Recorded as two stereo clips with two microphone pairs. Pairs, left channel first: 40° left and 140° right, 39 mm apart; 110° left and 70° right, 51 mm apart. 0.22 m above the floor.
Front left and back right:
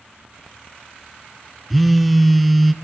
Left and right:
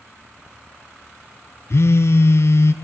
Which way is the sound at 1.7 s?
130° left.